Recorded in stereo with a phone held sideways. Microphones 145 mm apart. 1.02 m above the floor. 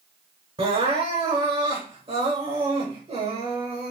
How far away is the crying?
About 2.0 m.